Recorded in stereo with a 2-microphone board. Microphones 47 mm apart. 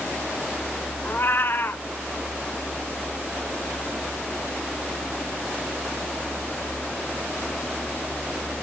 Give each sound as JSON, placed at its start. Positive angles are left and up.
{"t": 1.1, "sound": "a cat meowing", "side_deg": 50, "distance_m": 0.6}